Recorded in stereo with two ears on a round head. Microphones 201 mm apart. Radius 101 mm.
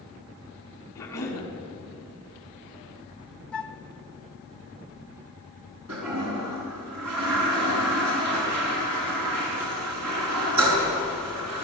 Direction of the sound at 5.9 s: 85° right.